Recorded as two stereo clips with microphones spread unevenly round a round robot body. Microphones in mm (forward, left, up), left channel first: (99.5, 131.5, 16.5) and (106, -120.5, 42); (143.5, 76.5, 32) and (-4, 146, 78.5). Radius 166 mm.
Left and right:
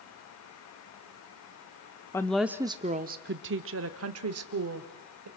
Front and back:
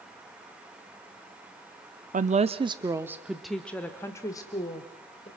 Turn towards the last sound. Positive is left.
turn(degrees=-75)